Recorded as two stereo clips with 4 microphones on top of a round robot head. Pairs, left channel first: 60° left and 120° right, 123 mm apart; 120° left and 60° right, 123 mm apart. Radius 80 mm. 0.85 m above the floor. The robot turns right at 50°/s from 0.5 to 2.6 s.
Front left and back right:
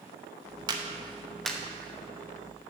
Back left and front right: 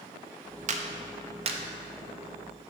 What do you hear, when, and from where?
0.7 s a clap: 70° right, 0.8 m; by 1.6 s 20° right, 0.8 m